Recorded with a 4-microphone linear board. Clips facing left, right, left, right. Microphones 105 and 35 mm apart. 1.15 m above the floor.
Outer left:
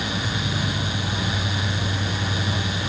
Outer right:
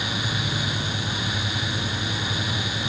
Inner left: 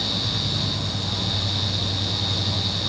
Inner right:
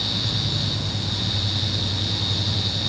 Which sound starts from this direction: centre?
An insect, at 0.0 s.